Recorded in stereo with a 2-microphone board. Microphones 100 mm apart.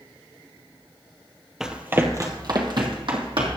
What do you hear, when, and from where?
1.6 s running footsteps: 5° right (ahead or behind), 1.3 m; by 3.6 s 65° right (ahead or behind), 3 m